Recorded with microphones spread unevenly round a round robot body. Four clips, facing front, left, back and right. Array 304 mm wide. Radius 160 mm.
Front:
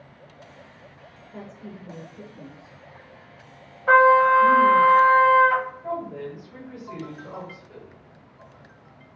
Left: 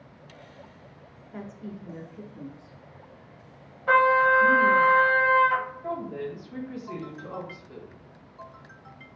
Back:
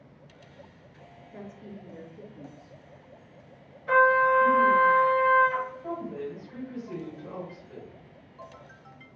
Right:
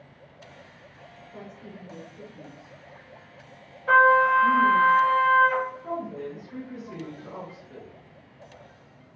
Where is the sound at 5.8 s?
80° left, 1.9 m.